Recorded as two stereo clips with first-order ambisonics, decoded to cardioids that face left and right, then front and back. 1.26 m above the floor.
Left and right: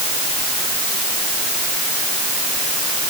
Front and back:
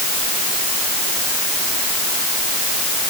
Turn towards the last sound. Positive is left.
No sound to turn to.